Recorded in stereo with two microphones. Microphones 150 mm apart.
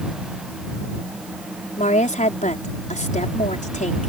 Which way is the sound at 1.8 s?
60° left (ahead or behind).